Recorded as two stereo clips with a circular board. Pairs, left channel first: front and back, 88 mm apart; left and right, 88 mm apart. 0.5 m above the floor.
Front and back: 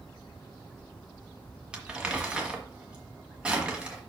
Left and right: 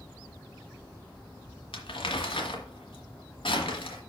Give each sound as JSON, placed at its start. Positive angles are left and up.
{"t": 1.7, "sound": "crumpling", "azimuth_deg": 100, "distance_m": 1.5}